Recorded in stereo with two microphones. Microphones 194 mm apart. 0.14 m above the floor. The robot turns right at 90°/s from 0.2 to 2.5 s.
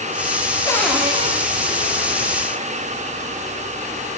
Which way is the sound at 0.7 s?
160° left.